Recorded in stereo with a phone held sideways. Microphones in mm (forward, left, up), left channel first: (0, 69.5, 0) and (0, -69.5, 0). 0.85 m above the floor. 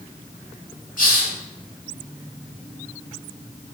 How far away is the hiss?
About 0.7 m.